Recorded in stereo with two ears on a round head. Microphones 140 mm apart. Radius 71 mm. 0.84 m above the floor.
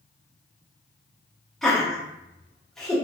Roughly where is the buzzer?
No buzzer in this recording.